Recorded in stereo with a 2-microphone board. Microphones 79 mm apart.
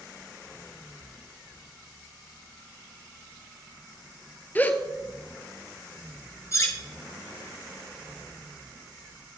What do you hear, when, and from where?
4.5 s a gasp: 20° left (ahead or behind), 0.5 m
6.5 s cutlery clinking: 40° left (ahead or behind), 1.0 m